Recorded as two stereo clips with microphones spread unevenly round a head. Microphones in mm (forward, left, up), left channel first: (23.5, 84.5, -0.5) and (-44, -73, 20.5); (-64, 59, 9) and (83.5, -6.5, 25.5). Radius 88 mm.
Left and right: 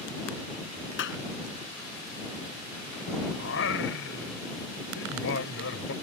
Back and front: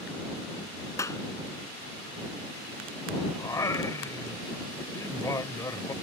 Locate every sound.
1.0 s a clap: 85° left
3.4 s singing: 85° left